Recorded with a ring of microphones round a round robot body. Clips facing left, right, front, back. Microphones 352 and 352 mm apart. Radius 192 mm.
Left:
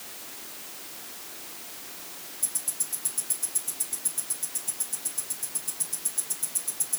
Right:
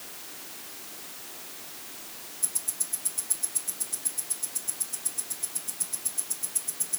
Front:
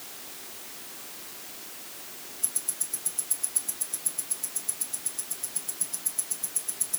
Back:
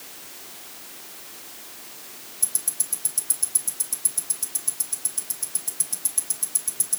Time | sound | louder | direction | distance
2.4 | ticking | even, back 1 dB | 175° left | 3.5 m